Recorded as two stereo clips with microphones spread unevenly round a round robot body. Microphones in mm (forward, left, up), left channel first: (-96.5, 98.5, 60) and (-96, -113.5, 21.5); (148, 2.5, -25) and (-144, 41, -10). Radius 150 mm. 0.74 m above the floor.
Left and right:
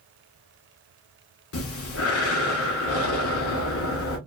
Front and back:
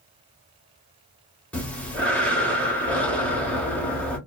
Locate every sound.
1.5 s breathing: 75° left, 0.8 m